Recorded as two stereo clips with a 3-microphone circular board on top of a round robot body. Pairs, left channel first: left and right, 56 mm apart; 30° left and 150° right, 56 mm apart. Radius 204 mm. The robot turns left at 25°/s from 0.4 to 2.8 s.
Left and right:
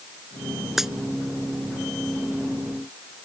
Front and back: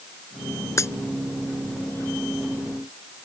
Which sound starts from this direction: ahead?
A dropped coin, at 0.8 s.